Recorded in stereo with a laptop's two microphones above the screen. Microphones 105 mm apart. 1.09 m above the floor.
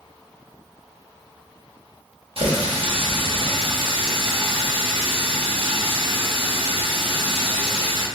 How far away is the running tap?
About 0.8 m.